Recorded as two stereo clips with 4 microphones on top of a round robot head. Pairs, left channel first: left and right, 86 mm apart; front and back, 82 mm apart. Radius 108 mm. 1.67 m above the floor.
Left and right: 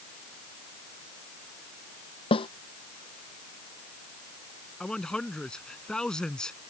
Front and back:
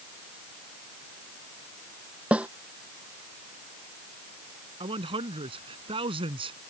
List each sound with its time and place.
2.3 s a snare drum: 105° left
4.8 s a man speaking: 170° left